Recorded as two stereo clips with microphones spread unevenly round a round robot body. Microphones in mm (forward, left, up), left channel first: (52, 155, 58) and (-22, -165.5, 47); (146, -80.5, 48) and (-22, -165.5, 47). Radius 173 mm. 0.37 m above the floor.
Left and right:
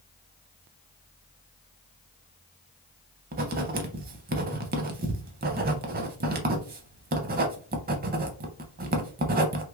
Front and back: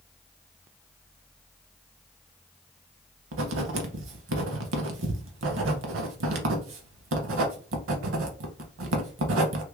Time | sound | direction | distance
3.3 | writing | 170° right | 0.5 m